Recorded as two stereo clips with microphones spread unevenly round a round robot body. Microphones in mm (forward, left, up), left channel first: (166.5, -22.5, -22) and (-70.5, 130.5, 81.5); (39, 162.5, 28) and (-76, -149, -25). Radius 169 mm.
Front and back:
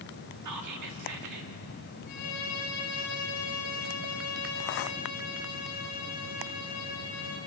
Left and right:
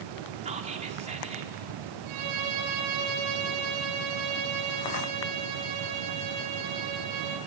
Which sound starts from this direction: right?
A violin, at 2.1 s.